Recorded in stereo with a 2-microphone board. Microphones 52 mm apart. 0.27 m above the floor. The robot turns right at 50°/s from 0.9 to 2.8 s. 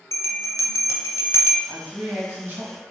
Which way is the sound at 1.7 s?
150° right.